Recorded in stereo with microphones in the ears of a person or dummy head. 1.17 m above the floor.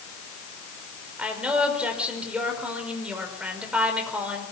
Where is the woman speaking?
10° right (ahead or behind), 5 m.